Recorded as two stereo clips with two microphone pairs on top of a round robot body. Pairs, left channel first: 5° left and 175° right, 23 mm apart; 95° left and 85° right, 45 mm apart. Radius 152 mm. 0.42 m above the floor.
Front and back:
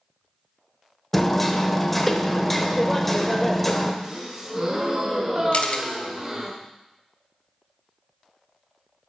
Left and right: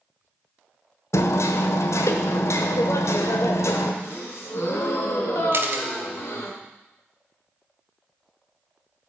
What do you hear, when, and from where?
1.1 s hammering: 80° left, 0.9 m
4.0 s a gasp: 110° left, 1.8 m
5.5 s a camera shutter: 40° right, 1.0 m